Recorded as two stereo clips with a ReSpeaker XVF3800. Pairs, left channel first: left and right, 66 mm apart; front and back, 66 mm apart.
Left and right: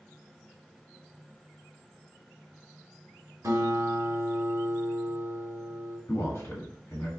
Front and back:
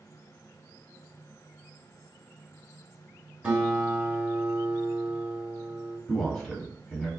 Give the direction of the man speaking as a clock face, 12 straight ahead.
9 o'clock.